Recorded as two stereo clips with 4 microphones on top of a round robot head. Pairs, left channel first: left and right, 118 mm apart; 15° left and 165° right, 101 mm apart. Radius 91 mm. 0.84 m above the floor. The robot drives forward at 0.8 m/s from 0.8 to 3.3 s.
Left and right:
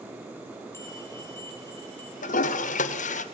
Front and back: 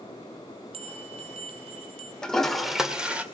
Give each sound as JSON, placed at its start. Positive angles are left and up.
{"t": 0.7, "sound": "a bell", "azimuth_deg": 165, "distance_m": 2.0}
{"t": 2.2, "sound": "a toilet flushing", "azimuth_deg": 95, "distance_m": 2.0}